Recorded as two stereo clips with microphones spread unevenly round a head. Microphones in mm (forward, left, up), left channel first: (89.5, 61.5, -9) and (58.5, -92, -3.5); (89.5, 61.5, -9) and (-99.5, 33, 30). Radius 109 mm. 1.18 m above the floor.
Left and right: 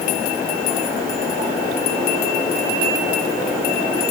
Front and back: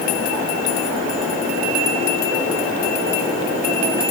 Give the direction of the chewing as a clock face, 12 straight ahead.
No chewing in this recording.